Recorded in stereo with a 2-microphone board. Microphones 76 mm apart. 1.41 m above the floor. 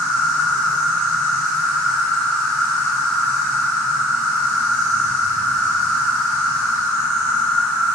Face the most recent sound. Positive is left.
turn(degrees=30)  # may be behind; listen again after turning